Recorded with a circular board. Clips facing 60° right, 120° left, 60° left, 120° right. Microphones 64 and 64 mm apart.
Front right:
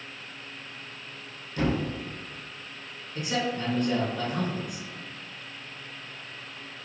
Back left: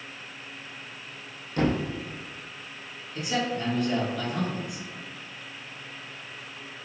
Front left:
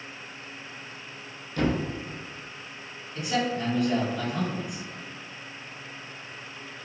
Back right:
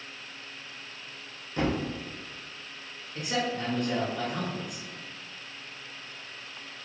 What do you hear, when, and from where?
1.6 s a thud: 165° left, 0.6 m
3.1 s a man speaking: 95° right, 1.9 m